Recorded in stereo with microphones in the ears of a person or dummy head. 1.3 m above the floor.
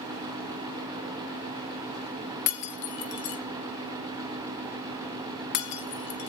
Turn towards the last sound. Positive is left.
turn(degrees=60)  # may be behind; listen again after turning